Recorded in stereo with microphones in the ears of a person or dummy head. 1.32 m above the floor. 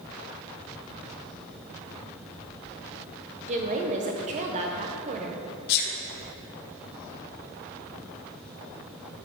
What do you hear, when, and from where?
3.5 s a woman speaking: 35° right (ahead or behind), 1.0 m
5.7 s a sneeze: 55° left (ahead or behind), 1.3 m